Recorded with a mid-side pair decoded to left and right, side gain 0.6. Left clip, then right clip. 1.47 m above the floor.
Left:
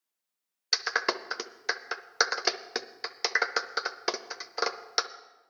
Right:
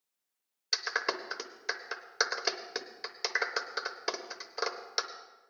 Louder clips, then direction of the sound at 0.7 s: Left 4 dB; 30° left.